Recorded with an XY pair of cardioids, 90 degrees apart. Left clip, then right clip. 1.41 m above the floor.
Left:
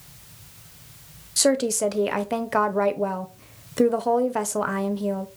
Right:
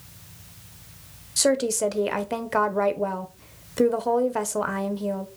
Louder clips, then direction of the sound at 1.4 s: Left 1 dB; 5° left.